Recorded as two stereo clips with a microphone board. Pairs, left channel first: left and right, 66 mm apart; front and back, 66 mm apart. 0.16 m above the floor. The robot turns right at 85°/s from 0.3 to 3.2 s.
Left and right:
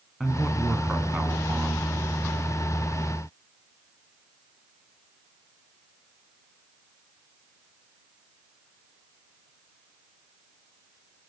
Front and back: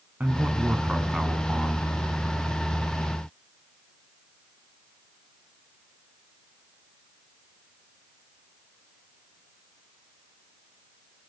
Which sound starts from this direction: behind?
A man speaking, at 0.2 s.